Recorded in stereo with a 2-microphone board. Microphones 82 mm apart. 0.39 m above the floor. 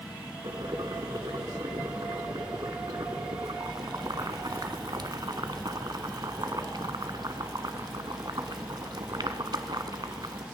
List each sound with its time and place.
0.4 s boiling: 60° right (ahead or behind), 0.9 m